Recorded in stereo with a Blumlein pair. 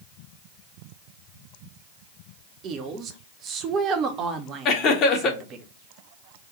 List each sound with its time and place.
2.6 s a woman speaking: 30° right, 0.8 m
4.7 s laughter: 35° left, 1.2 m